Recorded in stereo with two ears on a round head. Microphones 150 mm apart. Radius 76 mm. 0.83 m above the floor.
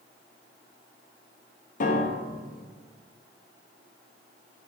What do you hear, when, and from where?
1.8 s a piano: 50° left (ahead or behind), 0.7 m